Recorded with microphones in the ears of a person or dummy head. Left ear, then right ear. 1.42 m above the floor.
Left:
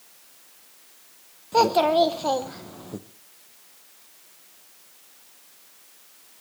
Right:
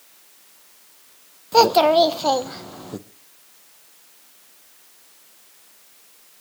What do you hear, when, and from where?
1.5 s a child speaking: 20° right (ahead or behind), 0.6 m